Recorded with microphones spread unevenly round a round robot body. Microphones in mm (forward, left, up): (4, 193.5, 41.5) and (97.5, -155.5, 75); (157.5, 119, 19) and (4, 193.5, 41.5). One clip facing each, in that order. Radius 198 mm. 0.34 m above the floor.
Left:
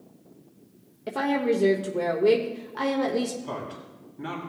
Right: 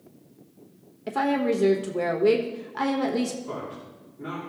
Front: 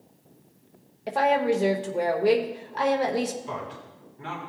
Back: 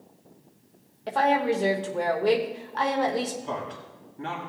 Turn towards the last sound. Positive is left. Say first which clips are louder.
# right 1 dB, back 2 dB
turn(degrees=120)